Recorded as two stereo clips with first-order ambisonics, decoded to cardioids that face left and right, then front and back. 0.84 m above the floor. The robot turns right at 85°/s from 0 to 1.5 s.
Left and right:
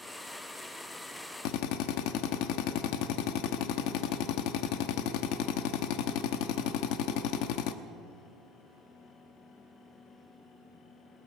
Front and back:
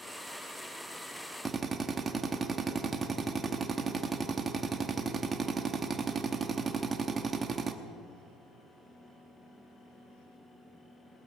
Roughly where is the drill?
Left.